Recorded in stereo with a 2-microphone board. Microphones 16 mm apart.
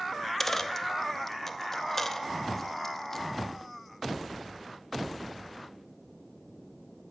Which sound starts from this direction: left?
A dropped coin, at 0.1 s.